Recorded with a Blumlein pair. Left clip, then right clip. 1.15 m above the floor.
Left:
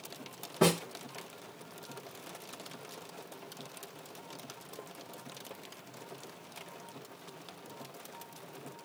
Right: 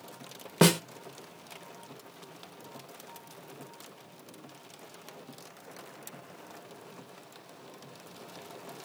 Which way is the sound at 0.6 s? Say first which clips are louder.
Right 4 dB; 55° right.